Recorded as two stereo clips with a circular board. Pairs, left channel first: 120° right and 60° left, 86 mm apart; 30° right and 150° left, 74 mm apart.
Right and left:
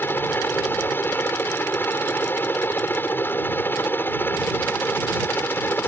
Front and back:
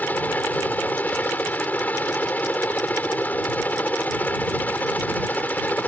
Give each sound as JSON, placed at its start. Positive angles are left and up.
{"t": 0.0, "sound": "a helicopter", "azimuth_deg": -75}